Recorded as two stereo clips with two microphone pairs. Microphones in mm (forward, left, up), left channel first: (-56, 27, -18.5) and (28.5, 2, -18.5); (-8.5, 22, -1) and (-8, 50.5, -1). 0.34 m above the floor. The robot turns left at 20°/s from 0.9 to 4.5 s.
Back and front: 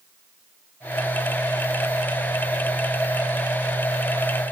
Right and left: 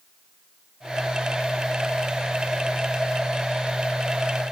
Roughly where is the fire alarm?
No fire alarm in this recording.